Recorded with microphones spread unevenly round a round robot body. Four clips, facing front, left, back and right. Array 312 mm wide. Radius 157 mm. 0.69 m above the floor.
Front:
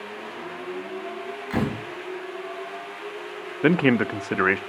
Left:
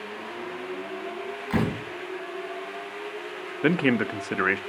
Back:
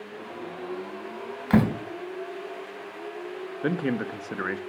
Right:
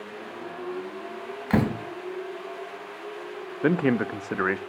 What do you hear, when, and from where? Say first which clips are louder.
1.5 s a door slam: right 3 dB, back 5 dB; 150° right, 3.5 m
3.6 s a man speaking: even, front 8 dB; 10° left, 0.5 m